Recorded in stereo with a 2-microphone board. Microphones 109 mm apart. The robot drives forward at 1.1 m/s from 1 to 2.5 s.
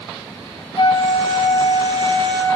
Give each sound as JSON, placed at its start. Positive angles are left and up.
{"t": 0.8, "sound": "a flute", "side_deg": 55, "distance_m": 1.4}